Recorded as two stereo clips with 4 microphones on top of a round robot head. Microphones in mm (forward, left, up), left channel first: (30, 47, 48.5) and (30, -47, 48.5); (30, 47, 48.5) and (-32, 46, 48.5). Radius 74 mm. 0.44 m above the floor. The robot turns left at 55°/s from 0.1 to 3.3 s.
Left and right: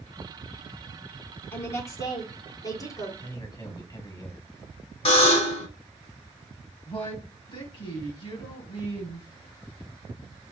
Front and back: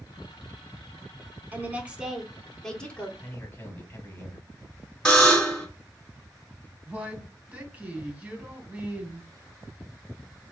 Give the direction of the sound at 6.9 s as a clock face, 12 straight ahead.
8 o'clock.